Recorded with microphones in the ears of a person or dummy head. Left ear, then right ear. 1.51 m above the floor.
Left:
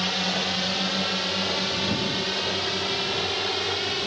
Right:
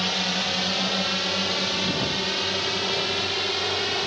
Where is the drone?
5° right (ahead or behind); by 4.1 s 10° right (ahead or behind).